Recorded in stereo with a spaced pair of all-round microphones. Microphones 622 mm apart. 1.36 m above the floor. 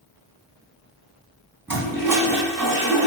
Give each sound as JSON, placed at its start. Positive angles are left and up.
{"t": 1.7, "sound": "a toilet flushing", "side_deg": -5, "distance_m": 1.0}